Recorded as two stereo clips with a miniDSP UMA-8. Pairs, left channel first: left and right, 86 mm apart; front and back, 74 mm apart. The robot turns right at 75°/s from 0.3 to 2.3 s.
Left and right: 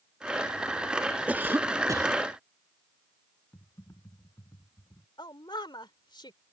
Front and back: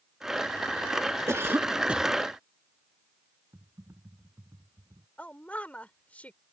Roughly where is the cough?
Behind right.